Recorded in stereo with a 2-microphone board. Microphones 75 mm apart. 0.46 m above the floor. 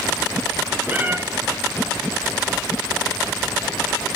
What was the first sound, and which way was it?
A cat meowing, 25° right (ahead or behind).